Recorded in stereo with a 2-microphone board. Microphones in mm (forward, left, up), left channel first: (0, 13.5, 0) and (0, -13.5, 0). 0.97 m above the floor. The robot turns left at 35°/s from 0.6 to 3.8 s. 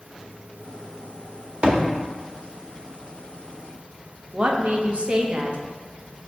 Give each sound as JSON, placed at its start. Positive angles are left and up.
{"t": 1.6, "sound": "a thud", "side_deg": -35, "distance_m": 0.7}
{"t": 4.3, "sound": "a woman speaking", "side_deg": -45, "distance_m": 0.6}